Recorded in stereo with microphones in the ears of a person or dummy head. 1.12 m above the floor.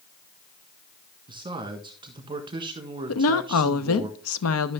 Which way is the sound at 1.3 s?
25° right (ahead or behind).